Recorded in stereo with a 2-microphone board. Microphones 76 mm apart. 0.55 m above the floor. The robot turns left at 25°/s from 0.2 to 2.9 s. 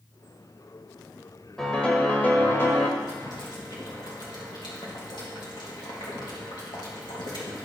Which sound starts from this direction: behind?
A piano, at 1.6 s.